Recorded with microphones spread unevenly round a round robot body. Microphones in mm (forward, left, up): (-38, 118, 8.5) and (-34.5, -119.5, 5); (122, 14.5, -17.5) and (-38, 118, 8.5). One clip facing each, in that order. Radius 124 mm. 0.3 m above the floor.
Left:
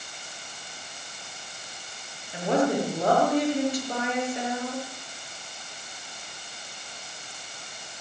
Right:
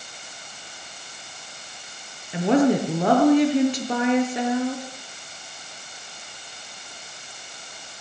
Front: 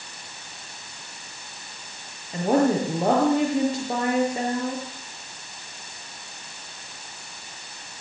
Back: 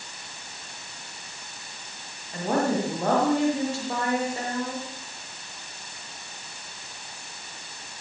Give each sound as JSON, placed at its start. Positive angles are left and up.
{"t": 2.3, "sound": "a woman speaking", "azimuth_deg": -110, "distance_m": 6.5}